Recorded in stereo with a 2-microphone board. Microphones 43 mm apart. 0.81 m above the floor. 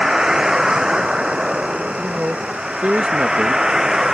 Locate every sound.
0.0 s a vehicle: 15° right (ahead or behind); by 4.1 s 10° right (ahead or behind)
2.0 s a man speaking: 30° right (ahead or behind)